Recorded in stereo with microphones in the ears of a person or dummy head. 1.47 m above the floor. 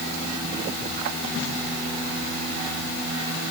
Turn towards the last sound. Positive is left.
No sound to turn to.